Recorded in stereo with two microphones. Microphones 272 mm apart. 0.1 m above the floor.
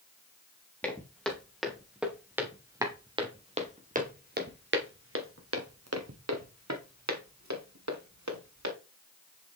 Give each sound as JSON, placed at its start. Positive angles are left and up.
{"t": 0.8, "sound": "footsteps", "side_deg": 5, "distance_m": 3.0}